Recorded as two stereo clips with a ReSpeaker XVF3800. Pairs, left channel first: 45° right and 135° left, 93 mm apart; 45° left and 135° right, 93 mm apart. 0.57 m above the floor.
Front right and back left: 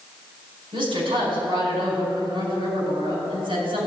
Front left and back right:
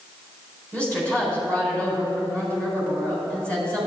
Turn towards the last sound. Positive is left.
turn(degrees=120)